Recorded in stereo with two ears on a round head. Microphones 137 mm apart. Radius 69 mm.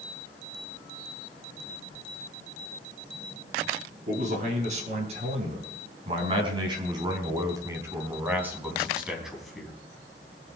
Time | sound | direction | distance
4.1 | a man speaking | 50° right (ahead or behind) | 5.5 m